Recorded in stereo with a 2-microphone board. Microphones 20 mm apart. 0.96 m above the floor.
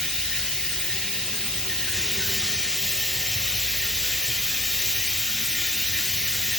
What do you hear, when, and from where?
0.0 s running water: 45° left (ahead or behind), 1.3 m